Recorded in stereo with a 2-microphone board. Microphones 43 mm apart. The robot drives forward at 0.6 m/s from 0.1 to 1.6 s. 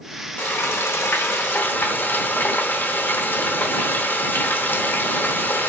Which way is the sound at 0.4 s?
60° left (ahead or behind).